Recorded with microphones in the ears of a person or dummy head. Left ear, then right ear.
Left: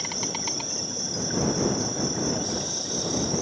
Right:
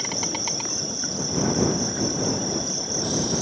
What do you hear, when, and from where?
0.0 s an insect: 5° right (ahead or behind)